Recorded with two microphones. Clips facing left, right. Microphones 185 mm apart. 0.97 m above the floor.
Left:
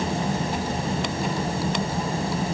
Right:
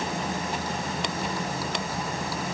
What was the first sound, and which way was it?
Only background noise.